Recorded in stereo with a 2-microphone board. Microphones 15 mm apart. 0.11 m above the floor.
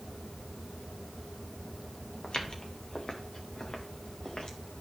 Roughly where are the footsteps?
Left.